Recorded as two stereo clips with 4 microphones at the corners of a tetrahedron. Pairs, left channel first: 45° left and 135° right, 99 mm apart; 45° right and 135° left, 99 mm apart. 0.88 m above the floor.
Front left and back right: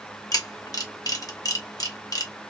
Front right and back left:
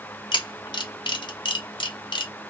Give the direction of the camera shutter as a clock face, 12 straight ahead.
12 o'clock.